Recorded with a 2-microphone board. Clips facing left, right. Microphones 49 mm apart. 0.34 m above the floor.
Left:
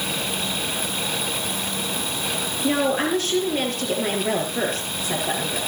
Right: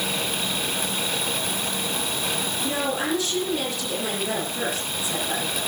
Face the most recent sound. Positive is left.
turn(degrees=45)  # may be behind; listen again after turning